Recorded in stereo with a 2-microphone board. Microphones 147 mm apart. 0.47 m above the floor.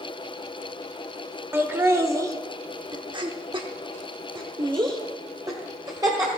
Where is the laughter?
15° right (ahead or behind), 1.2 m; by 6.3 s 25° right (ahead or behind), 1.9 m.